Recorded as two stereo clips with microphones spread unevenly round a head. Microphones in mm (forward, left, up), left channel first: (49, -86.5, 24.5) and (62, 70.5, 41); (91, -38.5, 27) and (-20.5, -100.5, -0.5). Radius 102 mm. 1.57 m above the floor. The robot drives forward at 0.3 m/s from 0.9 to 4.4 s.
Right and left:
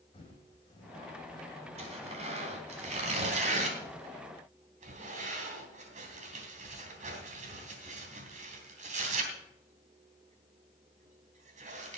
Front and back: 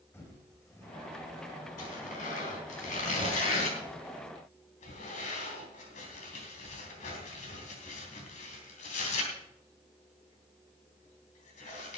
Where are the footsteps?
35° right, 6 m; by 1.7 s 30° right, 6 m.